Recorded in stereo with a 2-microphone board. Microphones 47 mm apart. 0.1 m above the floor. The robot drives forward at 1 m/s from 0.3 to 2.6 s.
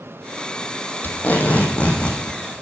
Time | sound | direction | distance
1.0 | tape being pulled | 45° left (ahead or behind) | 1.3 m